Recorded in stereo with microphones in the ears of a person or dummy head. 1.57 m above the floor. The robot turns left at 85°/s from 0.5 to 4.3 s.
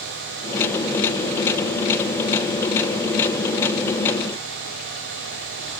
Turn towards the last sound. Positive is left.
No sound to turn to.